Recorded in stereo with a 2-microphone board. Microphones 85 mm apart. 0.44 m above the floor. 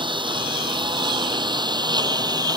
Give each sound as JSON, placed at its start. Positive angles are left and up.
{"t": 0.0, "sound": "a lawn mower", "side_deg": -80}